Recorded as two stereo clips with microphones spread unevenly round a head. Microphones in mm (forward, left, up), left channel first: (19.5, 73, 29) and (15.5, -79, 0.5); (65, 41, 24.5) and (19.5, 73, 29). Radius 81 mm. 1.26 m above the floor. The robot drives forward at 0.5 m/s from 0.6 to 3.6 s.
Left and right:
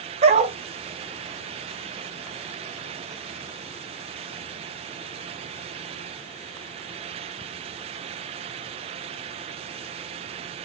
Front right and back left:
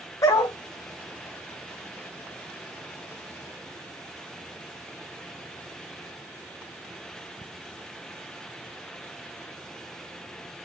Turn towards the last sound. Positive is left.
turn(degrees=-115)